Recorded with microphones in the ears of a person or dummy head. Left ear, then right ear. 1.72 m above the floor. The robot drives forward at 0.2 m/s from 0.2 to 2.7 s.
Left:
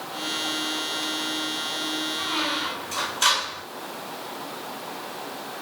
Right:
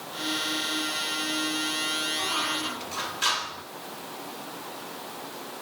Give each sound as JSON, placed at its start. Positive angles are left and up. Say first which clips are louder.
{"t": 2.2, "sound": "a squeak", "louder": "left 2 dB", "side_deg": -5, "distance_m": 3.5}